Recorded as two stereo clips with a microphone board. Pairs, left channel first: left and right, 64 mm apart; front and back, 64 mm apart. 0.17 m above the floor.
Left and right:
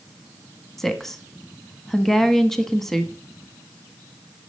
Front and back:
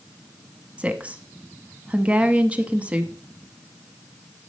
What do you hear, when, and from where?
0.8 s a woman speaking: 170° left, 1.2 m